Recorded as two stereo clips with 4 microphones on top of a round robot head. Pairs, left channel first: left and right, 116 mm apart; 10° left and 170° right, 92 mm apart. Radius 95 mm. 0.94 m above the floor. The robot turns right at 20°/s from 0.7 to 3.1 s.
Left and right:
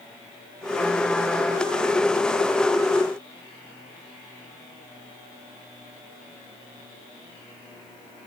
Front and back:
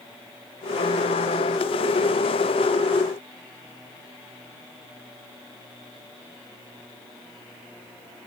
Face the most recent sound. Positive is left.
No sound to turn to.